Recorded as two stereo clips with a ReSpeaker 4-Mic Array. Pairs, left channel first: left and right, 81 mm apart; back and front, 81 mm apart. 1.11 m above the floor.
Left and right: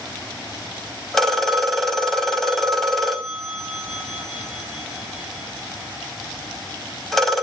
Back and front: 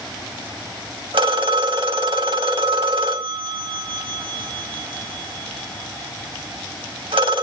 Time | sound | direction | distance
1.1 | a phone ringing | straight ahead | 2 m